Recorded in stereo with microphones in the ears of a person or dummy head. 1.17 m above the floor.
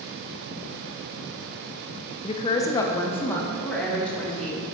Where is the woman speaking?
25° left (ahead or behind), 0.7 m; by 4.6 s 5° left (ahead or behind), 2.5 m.